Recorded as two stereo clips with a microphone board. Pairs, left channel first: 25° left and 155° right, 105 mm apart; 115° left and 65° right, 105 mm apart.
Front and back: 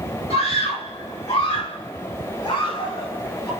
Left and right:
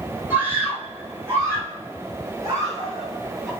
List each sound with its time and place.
0.3 s a scream: 5° left, 7.5 m; by 3.5 s 15° right, 9.5 m